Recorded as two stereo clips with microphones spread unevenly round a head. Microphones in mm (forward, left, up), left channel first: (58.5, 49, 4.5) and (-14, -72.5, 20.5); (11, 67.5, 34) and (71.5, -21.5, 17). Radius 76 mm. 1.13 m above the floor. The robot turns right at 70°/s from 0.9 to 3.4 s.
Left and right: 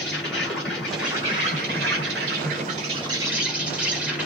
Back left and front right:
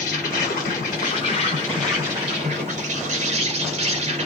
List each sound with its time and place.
0.0 s an insect: 145° left, 2.5 m; by 4.3 s 40° right, 2.5 m